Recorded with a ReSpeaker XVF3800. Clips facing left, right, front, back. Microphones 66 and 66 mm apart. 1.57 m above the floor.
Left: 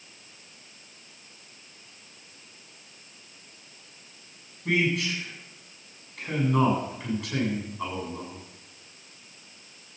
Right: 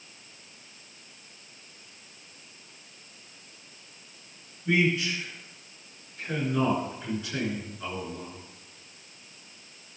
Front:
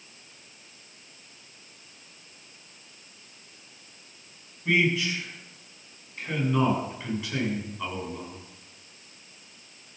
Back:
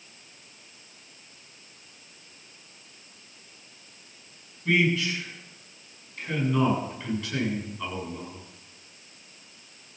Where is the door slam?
I don't hear a door slam.